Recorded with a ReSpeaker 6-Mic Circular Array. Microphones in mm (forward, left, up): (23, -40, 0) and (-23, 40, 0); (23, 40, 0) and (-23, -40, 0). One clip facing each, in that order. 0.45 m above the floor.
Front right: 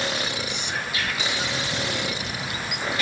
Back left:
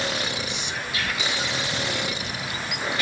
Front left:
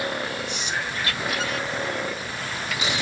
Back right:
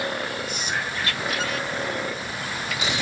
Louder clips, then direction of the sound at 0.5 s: Front right 1 dB, back right 1 dB; 75° right.